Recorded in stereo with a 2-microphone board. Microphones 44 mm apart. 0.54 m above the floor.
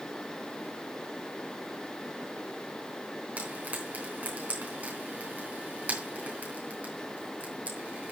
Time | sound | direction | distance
3.4 | frying | 35° right (ahead or behind) | 3.5 m